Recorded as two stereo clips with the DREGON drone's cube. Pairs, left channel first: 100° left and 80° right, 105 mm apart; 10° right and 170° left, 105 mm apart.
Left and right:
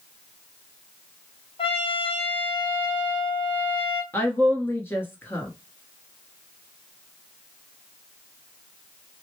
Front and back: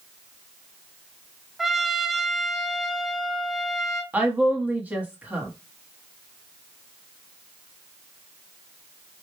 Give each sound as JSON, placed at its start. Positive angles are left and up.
{"t": 1.6, "sound": "a trumpet", "azimuth_deg": 80, "distance_m": 0.7}
{"t": 4.1, "sound": "a woman speaking", "azimuth_deg": 120, "distance_m": 1.1}